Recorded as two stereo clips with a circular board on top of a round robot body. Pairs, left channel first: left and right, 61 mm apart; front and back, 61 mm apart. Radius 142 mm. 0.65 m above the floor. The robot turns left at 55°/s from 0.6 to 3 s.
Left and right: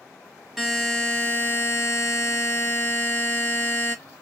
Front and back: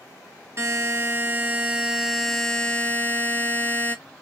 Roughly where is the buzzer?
Behind.